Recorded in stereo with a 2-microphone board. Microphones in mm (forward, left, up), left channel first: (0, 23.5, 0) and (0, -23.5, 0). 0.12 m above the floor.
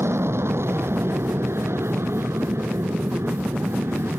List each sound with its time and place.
0.0 s an aircraft: 70° right (ahead or behind); by 4.2 s 75° right (ahead or behind)